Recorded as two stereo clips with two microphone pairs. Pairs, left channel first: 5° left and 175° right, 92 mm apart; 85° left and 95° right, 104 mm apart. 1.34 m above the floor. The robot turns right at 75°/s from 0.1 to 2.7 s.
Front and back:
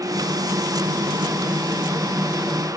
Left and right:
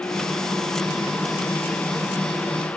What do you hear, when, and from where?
Only background noise.